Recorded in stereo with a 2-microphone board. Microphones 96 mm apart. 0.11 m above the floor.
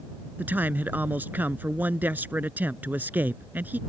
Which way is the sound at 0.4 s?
20° right (ahead or behind).